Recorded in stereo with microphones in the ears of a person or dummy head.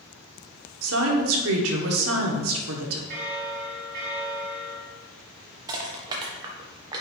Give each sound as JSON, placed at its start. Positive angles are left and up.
{"t": 0.8, "sound": "a woman speaking", "side_deg": -80, "distance_m": 1.3}
{"t": 3.1, "sound": "a bell", "side_deg": -50, "distance_m": 1.5}
{"t": 5.7, "sound": "crushing", "side_deg": -20, "distance_m": 1.0}